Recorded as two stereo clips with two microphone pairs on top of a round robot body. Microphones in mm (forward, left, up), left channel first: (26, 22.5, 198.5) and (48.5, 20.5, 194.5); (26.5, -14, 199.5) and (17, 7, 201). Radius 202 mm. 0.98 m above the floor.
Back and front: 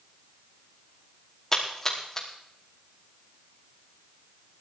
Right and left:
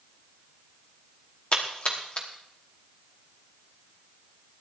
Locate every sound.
1.5 s a splash: 110° right, 1.1 m